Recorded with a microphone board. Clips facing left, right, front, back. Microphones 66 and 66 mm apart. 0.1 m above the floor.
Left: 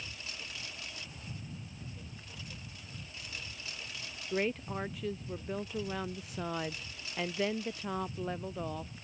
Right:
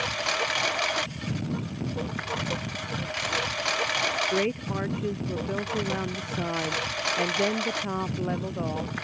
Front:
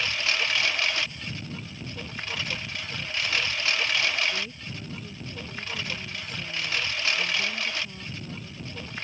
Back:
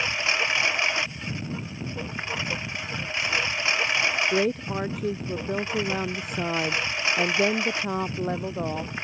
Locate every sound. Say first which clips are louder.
0.0 s a lawn mower: right 19 dB, back 2 dB; 110° right
4.3 s a woman speaking: right 7 dB, back 11 dB; 160° right